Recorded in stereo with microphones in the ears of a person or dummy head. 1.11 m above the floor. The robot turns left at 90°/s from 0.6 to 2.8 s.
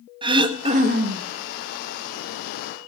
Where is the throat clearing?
25° right, 1.2 m; by 1.3 s 90° right, 1.2 m.